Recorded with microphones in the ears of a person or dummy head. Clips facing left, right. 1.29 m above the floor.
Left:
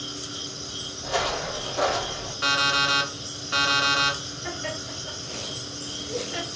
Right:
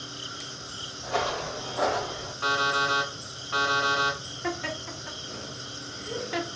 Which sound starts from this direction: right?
Laughter, at 4.4 s.